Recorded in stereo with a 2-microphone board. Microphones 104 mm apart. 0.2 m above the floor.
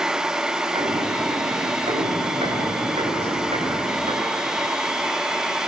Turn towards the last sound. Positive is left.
turn(degrees=-85)